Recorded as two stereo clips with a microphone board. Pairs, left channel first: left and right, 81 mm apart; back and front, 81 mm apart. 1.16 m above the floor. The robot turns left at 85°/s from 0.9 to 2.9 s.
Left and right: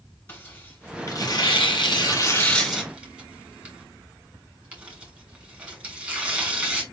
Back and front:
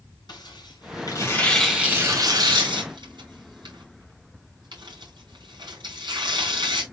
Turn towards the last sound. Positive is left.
turn(degrees=-20)